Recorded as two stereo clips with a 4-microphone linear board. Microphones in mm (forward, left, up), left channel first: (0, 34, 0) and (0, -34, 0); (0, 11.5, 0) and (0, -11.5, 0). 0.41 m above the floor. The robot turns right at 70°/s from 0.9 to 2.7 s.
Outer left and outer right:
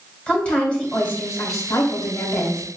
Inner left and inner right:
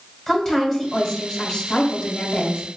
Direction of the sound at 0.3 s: 15° left.